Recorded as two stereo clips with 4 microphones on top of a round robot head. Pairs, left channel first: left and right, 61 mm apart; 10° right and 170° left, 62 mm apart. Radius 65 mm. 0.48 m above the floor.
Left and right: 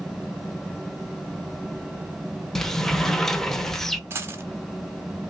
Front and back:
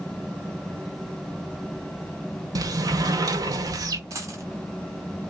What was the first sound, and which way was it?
A sliding door, 170° left.